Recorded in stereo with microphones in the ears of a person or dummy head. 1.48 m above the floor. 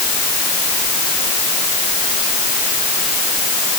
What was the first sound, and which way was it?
Only background noise.